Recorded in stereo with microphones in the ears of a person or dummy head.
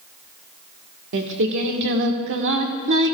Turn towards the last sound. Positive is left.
turn(degrees=-65)  # may be behind; listen again after turning